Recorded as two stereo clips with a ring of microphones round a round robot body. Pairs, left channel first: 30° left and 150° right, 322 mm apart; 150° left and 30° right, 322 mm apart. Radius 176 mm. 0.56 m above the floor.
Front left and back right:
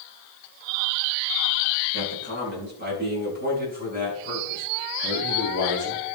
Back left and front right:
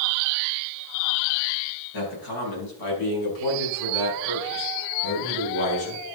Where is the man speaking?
155° left, 4.5 m; by 6.0 s 140° left, 7.5 m.